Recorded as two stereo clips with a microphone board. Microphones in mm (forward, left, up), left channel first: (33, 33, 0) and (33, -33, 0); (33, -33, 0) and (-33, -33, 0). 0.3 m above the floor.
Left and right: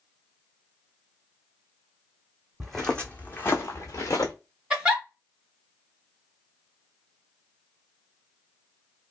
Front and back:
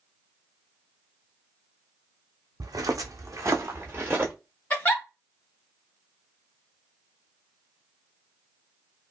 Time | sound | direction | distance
2.6 | footsteps | straight behind | 0.8 m
4.7 | a giggle | 25° right | 1.1 m